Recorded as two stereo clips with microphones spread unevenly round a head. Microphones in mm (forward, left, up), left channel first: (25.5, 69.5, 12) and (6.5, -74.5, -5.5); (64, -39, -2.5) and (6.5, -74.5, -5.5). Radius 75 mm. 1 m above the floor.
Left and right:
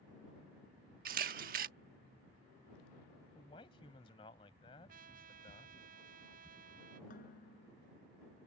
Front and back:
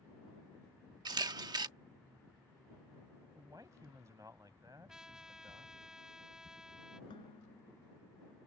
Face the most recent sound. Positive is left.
turn(degrees=55)